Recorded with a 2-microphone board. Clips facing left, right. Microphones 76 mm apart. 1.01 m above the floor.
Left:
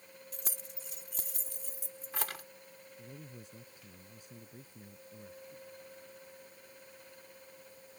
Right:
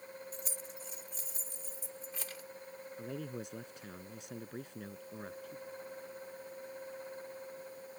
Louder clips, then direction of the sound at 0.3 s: Right 3 dB; 75° left (ahead or behind).